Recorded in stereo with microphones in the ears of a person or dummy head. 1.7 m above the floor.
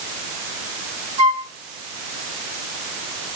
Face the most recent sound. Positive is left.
turn(degrees=-40)  # may be behind; listen again after turning